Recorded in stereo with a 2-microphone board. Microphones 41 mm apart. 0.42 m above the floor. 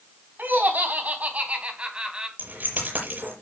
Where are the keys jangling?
50° right (ahead or behind), 8 m.